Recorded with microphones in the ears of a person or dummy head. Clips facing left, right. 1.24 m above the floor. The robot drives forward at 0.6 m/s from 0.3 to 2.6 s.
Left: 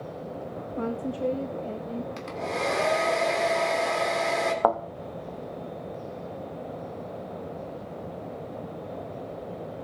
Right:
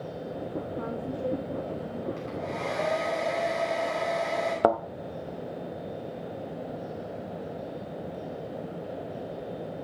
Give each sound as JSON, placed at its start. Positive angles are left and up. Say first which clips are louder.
{"t": 0.8, "sound": "a woman speaking", "louder": "left 8 dB", "side_deg": 45, "distance_m": 0.7}
{"t": 2.2, "sound": "a hair dryer", "louder": "left 2 dB", "side_deg": 85, "distance_m": 3.0}
{"t": 4.6, "sound": "a thud", "louder": "right 2 dB", "side_deg": -25, "distance_m": 0.6}